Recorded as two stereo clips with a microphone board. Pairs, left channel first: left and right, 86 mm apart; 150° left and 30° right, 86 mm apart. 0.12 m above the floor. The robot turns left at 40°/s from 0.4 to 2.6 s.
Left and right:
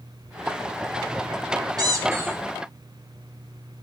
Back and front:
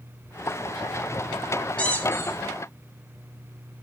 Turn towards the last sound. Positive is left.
turn(degrees=-165)